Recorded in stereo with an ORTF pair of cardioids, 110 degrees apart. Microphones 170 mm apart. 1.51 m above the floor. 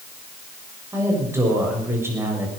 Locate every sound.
0.9 s a woman speaking: 15° right, 7 m